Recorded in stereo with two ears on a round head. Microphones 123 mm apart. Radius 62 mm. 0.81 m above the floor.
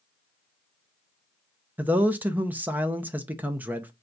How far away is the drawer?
I don't hear a drawer.